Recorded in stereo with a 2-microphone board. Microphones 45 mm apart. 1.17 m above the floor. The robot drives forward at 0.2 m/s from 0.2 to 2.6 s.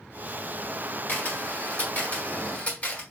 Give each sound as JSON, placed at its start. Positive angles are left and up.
{"t": 1.1, "sound": "a camera shutter", "side_deg": 45, "distance_m": 1.9}